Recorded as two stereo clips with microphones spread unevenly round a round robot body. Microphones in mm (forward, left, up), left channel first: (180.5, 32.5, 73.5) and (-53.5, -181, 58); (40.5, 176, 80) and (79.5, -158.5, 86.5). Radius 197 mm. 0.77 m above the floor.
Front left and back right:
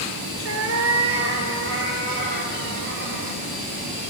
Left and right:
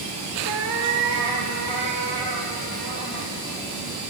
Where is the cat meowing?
95° right, 1.7 m; by 3.4 s 90° right, 4 m.